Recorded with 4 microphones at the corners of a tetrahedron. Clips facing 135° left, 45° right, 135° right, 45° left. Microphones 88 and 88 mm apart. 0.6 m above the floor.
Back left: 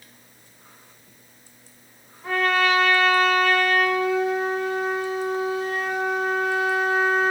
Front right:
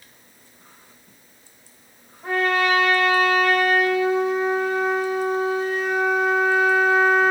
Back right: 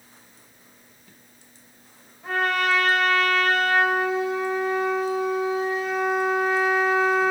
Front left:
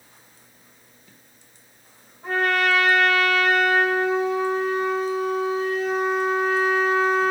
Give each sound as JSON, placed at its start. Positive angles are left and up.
{"t": 2.2, "sound": "a trumpet", "azimuth_deg": -10, "distance_m": 2.0}